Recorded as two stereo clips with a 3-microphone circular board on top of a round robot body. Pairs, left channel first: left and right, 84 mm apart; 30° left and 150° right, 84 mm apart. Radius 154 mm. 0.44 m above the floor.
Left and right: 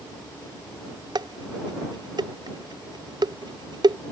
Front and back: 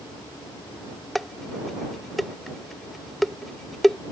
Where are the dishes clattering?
60° right.